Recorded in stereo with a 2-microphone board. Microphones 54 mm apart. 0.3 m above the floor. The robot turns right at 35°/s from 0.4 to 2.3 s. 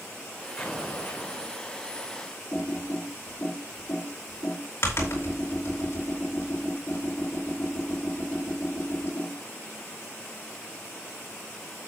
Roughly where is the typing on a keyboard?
Left.